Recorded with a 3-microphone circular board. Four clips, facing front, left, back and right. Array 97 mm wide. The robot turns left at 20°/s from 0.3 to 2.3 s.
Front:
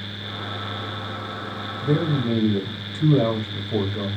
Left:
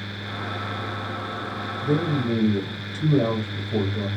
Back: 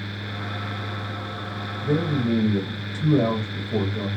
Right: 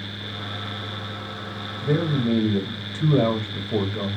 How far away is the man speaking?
About 0.9 m.